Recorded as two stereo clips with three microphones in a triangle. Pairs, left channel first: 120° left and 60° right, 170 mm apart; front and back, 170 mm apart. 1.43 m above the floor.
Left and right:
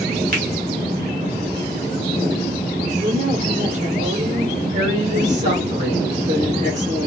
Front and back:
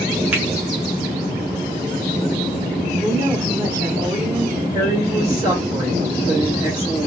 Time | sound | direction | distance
0.3 | a finger snap | 95° right | 1.2 m
2.9 | a woman speaking | 105° right | 1.0 m
4.7 | a woman speaking | 110° right | 2 m